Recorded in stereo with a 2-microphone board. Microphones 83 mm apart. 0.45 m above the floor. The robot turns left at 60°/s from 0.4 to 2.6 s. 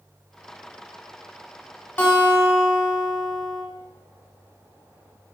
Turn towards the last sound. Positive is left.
turn(degrees=110)